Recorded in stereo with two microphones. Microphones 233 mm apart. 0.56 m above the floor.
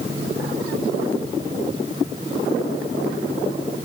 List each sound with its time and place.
Only background noise.